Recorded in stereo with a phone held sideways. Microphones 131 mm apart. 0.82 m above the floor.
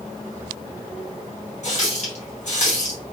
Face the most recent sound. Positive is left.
turn(degrees=55)  # may be behind; listen again after turning